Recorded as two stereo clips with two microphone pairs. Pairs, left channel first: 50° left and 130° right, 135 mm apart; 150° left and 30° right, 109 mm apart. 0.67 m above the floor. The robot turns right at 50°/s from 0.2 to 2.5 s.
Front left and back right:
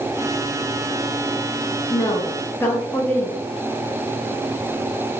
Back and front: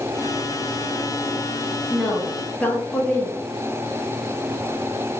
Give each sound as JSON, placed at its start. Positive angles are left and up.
{"t": 1.9, "sound": "a woman speaking", "azimuth_deg": 60, "distance_m": 0.8}